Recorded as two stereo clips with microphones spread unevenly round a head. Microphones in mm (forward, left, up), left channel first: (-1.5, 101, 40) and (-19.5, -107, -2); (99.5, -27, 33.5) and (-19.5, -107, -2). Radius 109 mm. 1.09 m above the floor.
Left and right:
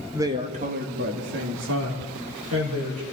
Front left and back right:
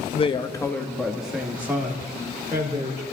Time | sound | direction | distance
0.1 | a woman speaking | 15° right | 1.1 m